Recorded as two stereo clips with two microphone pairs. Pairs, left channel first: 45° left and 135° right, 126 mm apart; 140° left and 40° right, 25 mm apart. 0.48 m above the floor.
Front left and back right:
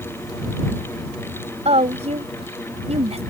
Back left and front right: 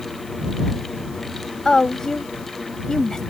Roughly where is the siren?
I don't hear a siren.